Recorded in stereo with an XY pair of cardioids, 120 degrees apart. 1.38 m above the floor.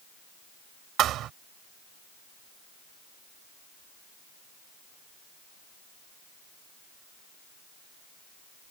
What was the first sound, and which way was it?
A thud, 70° right.